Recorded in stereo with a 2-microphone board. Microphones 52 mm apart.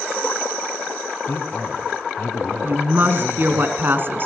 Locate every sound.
1.3 s a man speaking: 50° left (ahead or behind), 2.5 m
2.6 s a woman speaking: 45° right (ahead or behind), 2.5 m